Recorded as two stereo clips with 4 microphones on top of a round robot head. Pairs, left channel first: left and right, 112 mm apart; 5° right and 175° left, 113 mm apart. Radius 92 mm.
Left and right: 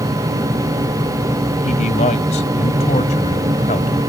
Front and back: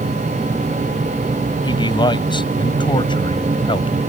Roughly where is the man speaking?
Ahead left.